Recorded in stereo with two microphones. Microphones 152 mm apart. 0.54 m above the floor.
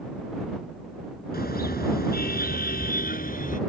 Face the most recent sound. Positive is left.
turn(degrees=60)  # may be behind; listen again after turning